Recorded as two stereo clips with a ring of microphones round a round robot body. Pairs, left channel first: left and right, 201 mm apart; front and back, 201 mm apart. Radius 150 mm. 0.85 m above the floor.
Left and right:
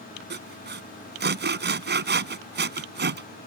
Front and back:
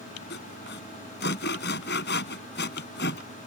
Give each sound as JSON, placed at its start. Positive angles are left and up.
{"t": 0.3, "sound": "sawing", "azimuth_deg": -55}